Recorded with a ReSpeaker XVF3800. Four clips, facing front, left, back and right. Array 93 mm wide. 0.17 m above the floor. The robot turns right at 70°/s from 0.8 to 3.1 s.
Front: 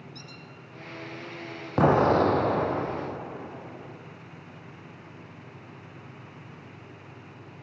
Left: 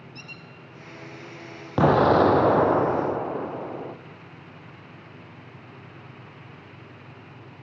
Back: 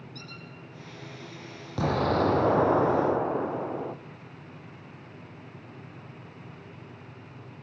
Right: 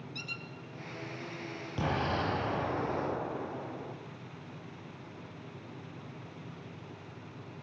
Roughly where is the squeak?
Right.